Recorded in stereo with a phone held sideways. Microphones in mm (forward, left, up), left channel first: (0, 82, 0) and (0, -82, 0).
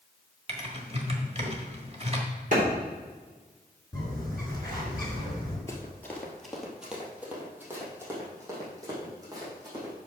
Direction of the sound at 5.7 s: 15° left (ahead or behind).